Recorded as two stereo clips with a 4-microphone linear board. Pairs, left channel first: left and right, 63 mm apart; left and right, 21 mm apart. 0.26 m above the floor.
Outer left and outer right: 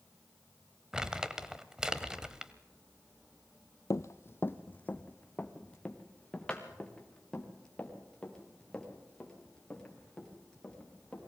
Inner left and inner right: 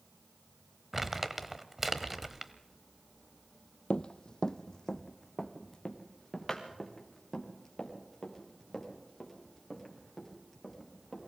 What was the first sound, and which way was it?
Crumpling, 10° right (ahead or behind).